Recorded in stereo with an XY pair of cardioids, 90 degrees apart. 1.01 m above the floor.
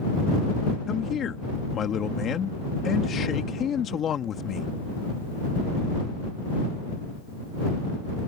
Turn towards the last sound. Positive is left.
turn(degrees=65)